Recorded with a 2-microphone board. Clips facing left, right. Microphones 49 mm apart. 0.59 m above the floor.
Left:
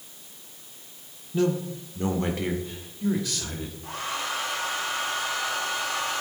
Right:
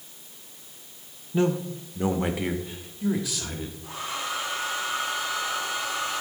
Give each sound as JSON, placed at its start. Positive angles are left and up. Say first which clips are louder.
{"t": 1.3, "sound": "a man speaking", "louder": "even", "side_deg": -25, "distance_m": 1.1}
{"t": 3.8, "sound": "a hair dryer", "louder": "left 2 dB", "side_deg": 55, "distance_m": 5.5}